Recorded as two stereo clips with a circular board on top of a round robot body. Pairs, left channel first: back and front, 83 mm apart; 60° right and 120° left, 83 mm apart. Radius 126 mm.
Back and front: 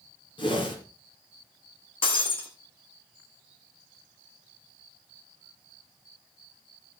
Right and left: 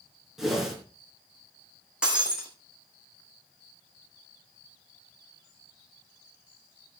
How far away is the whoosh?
About 4 m.